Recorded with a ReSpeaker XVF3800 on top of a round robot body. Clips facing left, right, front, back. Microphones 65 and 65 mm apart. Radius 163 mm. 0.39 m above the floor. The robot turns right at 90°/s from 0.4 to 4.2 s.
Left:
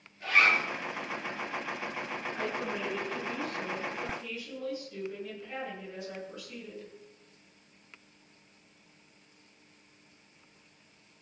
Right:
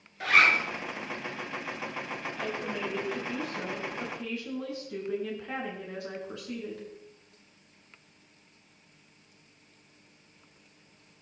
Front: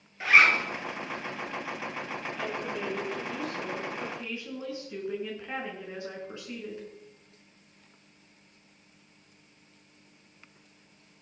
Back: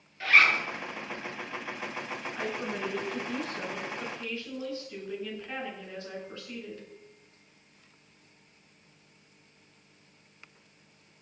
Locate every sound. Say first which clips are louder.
0.2 s a zipper: right 3 dB, front 2 dB; 70° right, 3.5 m; by 0.6 s 55° right, 3.5 m
2.4 s a woman speaking: even, back 1 dB; 125° left, 7 m; by 6.9 s 70° right, 7 m